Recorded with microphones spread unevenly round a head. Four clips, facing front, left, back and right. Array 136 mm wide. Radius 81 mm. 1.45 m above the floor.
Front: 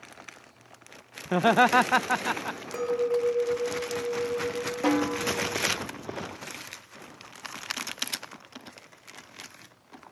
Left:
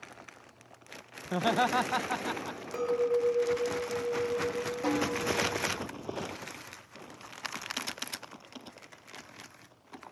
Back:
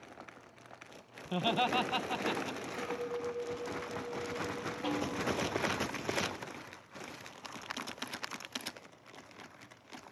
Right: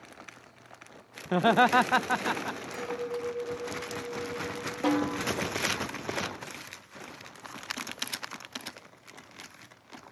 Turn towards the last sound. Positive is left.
turn(degrees=-25)